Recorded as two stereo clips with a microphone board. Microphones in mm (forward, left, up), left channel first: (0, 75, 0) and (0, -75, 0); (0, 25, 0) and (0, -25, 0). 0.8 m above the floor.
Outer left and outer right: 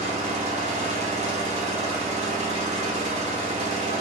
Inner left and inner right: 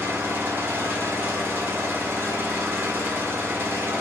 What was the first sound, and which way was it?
An engine running, 45° right (ahead or behind).